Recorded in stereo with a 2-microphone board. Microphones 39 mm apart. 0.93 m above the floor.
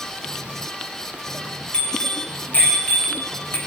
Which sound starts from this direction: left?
A bicycle bell, at 1.7 s.